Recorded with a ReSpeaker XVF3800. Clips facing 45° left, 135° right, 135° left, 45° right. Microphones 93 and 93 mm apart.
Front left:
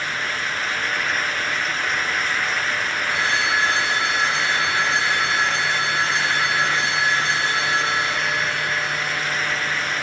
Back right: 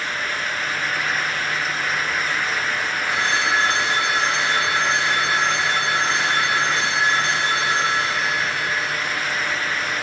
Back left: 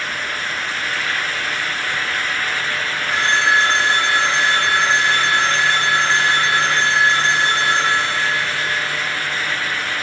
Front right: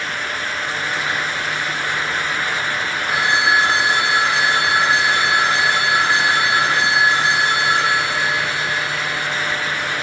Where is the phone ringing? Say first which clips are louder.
Back right 1 dB, even; 125° right, 3 m.